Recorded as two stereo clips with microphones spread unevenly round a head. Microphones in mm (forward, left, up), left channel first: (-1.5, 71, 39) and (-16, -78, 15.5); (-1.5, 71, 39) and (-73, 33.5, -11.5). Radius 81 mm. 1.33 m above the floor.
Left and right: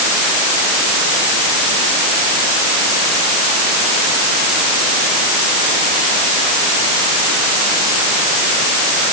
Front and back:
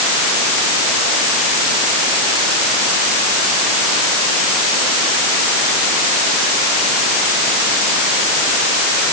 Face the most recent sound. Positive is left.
No sound to turn to.